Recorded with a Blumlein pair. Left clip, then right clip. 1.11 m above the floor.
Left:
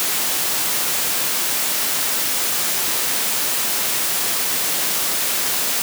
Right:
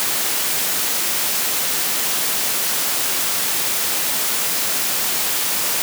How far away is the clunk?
No clunk in this recording.